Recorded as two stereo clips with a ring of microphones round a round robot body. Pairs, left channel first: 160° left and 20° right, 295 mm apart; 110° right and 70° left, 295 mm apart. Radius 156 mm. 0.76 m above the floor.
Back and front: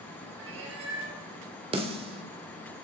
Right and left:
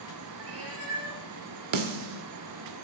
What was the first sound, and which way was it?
A cat meowing, 25° left.